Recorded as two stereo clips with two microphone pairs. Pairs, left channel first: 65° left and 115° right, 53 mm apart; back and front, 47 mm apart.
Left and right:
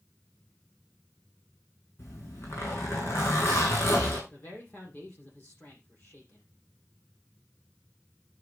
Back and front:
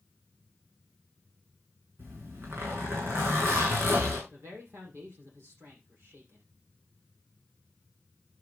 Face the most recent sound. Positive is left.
turn(degrees=10)